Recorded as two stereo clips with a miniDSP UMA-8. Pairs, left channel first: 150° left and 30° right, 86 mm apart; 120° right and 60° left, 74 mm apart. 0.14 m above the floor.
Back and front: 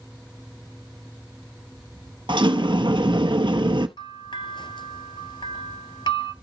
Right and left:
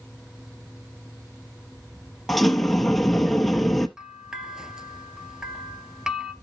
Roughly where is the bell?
Behind left.